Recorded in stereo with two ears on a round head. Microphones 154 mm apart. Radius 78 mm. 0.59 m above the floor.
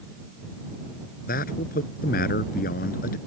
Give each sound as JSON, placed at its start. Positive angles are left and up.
{"t": 1.3, "sound": "a man speaking", "side_deg": 50}